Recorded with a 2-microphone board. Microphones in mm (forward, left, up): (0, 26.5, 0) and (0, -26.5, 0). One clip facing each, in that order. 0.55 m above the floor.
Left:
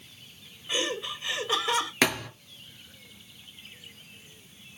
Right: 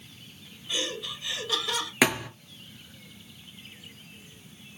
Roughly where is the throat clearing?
I don't hear throat clearing.